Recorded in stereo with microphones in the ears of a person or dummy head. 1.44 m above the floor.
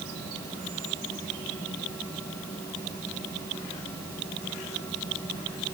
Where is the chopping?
No chopping in this recording.